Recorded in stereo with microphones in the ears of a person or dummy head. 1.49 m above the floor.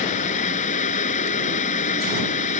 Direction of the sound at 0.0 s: 40° left (ahead or behind).